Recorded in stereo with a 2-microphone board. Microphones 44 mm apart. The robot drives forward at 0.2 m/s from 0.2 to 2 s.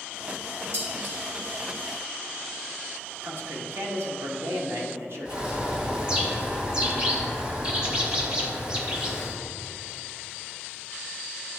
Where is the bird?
20° right (ahead or behind), 1.2 m.